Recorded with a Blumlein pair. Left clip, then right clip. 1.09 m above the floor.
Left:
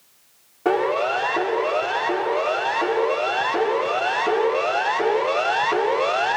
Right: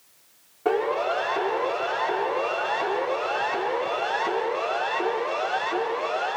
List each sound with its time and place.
0.7 s a siren: 10° left, 4 m; by 6.4 s 30° left, 1.0 m